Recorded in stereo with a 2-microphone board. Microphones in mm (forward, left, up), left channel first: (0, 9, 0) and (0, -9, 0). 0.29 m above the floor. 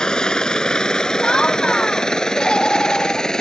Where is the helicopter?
50° left (ahead or behind); by 3.4 s 40° left (ahead or behind).